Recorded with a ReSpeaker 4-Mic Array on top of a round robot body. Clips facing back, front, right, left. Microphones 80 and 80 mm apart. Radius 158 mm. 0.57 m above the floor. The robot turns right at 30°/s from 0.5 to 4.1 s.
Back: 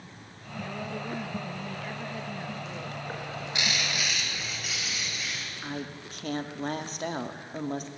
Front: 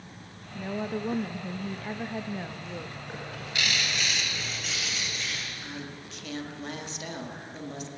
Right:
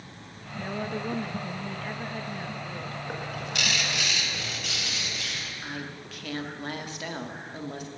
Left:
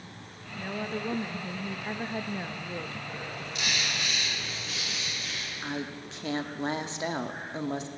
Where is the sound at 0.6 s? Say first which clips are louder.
Front 4 dB, right 2 dB; 15° right, 1.0 m; by 3.0 s 60° left, 1.0 m.